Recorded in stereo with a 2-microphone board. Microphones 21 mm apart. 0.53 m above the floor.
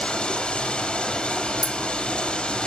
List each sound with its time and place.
0.0 s running water: 75° left (ahead or behind), 6.5 m
1.6 s a clink: 35° left (ahead or behind), 2.0 m